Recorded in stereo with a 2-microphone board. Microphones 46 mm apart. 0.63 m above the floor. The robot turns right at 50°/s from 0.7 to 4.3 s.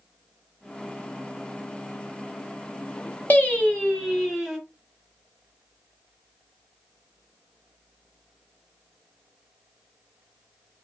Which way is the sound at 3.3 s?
140° left.